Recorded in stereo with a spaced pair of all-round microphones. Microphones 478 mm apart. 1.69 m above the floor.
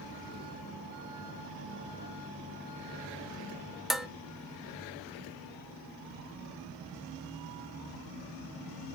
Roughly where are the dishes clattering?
Centre.